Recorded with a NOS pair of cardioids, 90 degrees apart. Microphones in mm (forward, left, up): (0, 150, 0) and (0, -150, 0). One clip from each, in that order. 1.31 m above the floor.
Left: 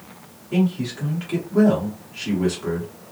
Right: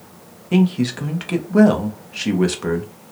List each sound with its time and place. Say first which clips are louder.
0.5 s a man speaking: right 5 dB; 60° right, 0.9 m